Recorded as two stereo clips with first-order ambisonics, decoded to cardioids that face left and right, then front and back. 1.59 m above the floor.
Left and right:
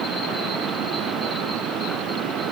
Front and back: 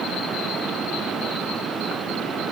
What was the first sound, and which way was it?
Only background noise.